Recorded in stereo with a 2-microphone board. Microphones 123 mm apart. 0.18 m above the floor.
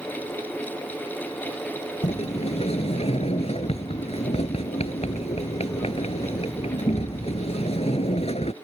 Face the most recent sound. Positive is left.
turn(degrees=60)  # may be behind; listen again after turning